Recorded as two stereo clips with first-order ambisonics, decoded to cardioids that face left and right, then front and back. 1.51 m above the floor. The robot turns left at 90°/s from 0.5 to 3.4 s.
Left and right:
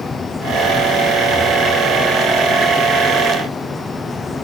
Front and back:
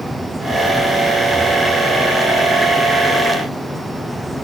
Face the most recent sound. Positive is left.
No sound to turn to.